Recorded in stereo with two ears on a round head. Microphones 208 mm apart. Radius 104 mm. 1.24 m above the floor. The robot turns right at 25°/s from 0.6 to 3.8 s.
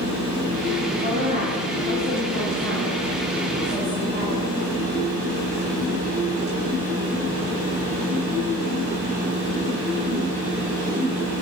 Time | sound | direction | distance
1.0 | a woman speaking | 125° left | 5 m